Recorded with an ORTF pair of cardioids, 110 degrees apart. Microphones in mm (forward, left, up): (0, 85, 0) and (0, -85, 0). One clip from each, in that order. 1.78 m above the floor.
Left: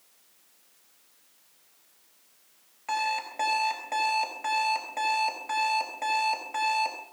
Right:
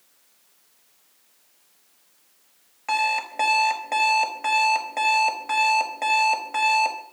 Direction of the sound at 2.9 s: 35° right.